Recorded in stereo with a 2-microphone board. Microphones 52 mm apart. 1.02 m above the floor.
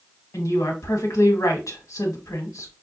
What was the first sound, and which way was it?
A woman speaking, 70° left (ahead or behind).